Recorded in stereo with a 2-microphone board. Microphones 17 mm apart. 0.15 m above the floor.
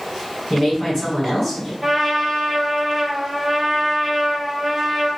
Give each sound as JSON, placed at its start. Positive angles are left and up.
{"t": 0.5, "sound": "a woman speaking", "side_deg": 20, "distance_m": 1.3}
{"t": 1.8, "sound": "a trumpet", "side_deg": 0, "distance_m": 0.8}